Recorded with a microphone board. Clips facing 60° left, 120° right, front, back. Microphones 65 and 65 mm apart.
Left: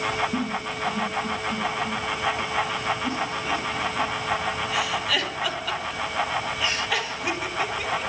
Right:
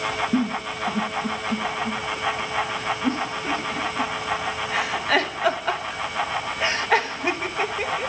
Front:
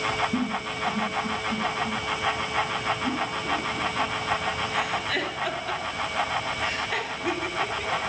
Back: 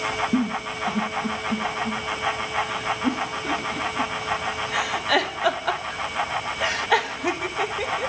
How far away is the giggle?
About 1.2 m.